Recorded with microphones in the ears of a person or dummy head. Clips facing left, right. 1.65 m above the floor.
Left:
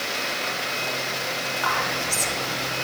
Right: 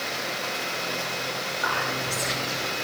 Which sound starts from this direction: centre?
Whispering, at 1.6 s.